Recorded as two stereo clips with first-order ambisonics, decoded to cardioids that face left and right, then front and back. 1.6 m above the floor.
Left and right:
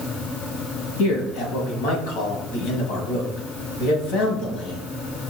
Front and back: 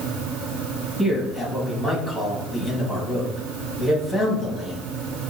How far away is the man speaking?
About 2 m.